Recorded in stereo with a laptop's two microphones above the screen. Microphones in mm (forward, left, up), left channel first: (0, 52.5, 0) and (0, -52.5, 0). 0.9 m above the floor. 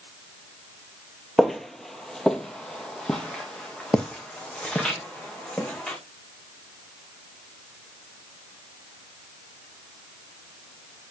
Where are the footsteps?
Centre (ahead or behind), 1.1 m; by 6.0 s 10° left (ahead or behind), 3.5 m.